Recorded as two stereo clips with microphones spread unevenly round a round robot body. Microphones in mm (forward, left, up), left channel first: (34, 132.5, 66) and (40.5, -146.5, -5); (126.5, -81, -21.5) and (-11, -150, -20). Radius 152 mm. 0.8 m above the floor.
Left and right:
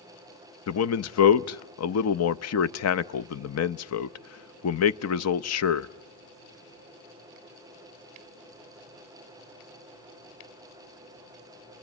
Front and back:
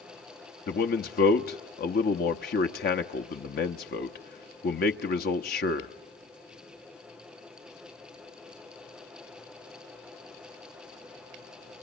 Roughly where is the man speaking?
Ahead left.